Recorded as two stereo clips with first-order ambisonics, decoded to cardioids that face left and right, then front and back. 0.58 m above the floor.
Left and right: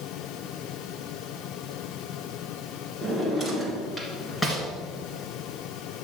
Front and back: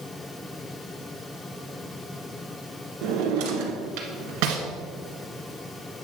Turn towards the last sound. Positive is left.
turn(degrees=170)